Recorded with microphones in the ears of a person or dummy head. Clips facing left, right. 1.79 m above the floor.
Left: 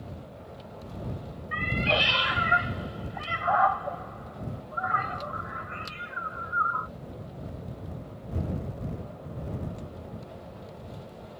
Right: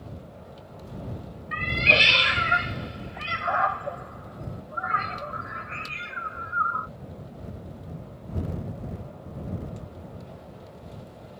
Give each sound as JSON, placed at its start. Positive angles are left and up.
{"t": 1.5, "sound": "a cat meowing", "side_deg": -30}